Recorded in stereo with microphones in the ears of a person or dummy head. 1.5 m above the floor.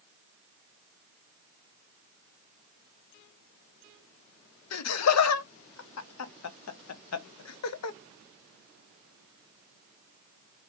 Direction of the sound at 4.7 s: 85° left.